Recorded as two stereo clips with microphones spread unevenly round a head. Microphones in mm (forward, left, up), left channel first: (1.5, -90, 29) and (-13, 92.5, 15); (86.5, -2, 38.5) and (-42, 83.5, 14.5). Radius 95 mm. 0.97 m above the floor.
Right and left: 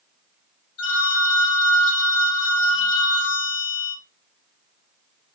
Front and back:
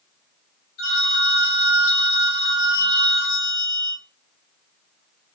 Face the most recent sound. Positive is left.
turn(degrees=-75)